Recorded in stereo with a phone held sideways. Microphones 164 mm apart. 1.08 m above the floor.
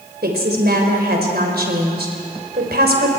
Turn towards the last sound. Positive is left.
turn(degrees=-75)  # may be behind; listen again after turning